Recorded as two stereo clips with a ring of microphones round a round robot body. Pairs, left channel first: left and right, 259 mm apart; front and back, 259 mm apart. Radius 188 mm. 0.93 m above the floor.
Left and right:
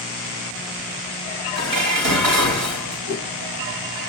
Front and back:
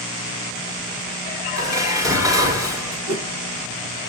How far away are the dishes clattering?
About 6 m.